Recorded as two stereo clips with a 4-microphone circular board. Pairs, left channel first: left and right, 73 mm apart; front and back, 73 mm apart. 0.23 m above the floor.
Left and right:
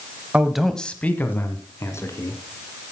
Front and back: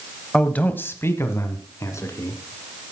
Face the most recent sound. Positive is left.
turn(degrees=45)